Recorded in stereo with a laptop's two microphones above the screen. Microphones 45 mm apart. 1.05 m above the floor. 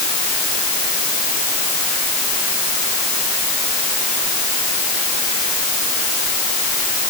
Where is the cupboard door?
No cupboard door in this recording.